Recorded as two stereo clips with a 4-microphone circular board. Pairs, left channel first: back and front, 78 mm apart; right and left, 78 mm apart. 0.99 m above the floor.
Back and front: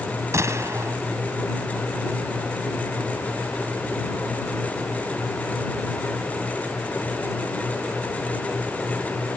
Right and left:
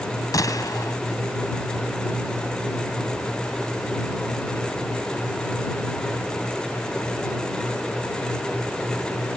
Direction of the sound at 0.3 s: 50° right.